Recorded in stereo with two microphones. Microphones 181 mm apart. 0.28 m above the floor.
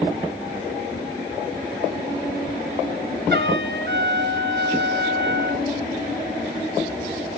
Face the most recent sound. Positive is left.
turn(degrees=-75)  # may be behind; listen again after turning